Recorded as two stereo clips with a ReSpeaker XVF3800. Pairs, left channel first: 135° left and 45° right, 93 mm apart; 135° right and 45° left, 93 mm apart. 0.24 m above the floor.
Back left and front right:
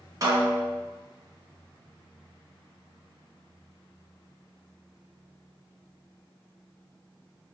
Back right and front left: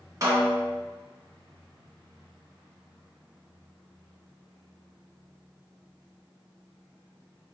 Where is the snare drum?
Straight ahead, 0.9 m.